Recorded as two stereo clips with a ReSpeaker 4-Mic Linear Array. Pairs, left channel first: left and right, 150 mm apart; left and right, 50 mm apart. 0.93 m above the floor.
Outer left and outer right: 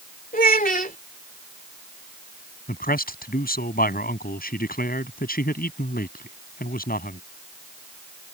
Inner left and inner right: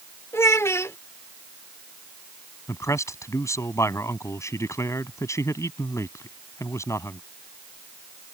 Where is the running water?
I don't hear running water.